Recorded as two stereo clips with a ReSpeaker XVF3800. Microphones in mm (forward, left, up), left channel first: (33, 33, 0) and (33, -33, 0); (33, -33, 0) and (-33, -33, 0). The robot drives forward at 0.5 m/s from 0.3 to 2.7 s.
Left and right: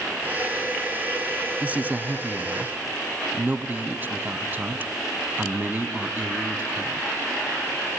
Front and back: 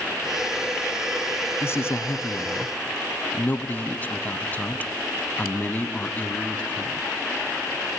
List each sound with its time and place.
1.6 s a man speaking: 30° right, 1.9 m; by 7.0 s 45° right, 1.6 m